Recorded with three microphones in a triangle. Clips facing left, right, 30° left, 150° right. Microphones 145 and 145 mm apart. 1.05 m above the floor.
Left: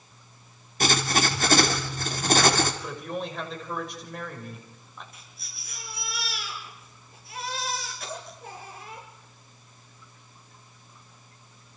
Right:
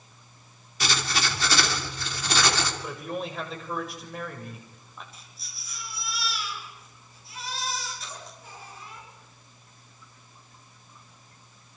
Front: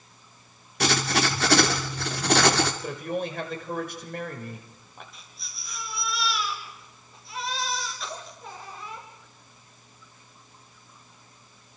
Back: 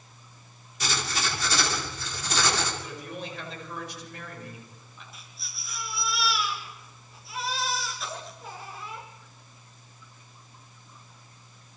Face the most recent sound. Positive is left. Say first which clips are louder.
# even, back 1 dB
turn(degrees=120)